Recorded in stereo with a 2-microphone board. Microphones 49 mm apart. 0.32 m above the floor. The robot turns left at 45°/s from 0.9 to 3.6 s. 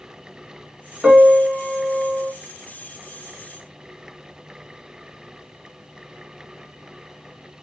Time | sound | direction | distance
1.0 | a piano | 165° right | 1.7 m